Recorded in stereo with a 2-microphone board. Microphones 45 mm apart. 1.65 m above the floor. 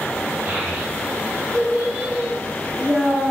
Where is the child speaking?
30° right (ahead or behind), 4 m; by 3.3 s 10° right (ahead or behind), 4.5 m.